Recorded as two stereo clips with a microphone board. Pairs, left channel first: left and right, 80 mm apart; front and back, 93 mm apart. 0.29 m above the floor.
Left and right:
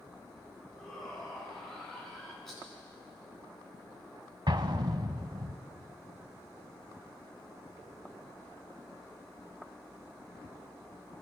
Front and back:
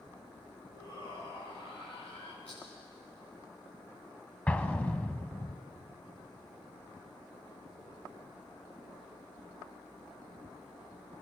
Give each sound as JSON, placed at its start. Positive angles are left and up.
{"t": 0.7, "sound": "a shout", "azimuth_deg": 5, "distance_m": 8.5}
{"t": 2.5, "sound": "a rattle", "azimuth_deg": 5, "distance_m": 8.5}
{"t": 4.5, "sound": "an explosion", "azimuth_deg": -75, "distance_m": 0.9}